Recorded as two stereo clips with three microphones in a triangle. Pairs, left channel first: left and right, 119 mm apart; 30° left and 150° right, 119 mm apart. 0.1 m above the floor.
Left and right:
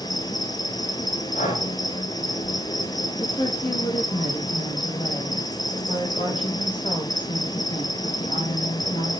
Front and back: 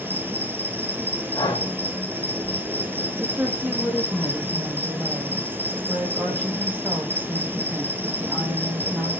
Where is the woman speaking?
140° left, 4.5 m.